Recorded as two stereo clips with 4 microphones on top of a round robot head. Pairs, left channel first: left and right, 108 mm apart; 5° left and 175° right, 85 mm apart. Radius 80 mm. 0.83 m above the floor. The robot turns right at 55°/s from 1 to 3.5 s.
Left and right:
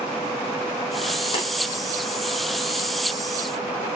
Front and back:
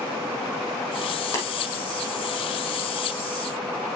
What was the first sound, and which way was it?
Tapping, 60° left.